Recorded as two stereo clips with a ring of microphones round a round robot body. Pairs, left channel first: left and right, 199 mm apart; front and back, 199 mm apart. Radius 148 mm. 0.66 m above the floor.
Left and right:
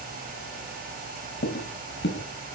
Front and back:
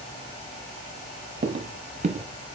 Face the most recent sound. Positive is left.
turn(degrees=130)